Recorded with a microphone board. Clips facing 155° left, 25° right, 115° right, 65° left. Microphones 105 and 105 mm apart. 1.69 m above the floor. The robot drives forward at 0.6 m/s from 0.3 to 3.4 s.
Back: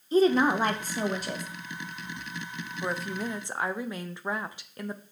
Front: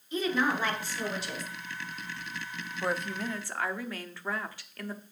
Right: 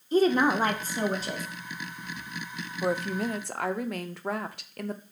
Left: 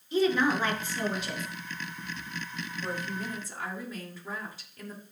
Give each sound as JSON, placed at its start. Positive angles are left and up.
{"t": 0.1, "sound": "a woman speaking", "azimuth_deg": -155, "distance_m": 1.1}
{"t": 2.8, "sound": "a woman speaking", "azimuth_deg": -105, "distance_m": 0.6}